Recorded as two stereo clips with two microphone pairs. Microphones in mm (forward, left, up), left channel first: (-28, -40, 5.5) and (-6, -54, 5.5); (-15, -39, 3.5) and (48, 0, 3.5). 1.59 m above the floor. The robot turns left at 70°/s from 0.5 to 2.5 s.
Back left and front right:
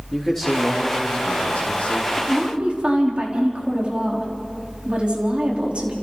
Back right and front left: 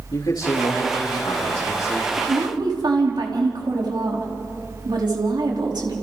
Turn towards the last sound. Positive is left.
turn(degrees=15)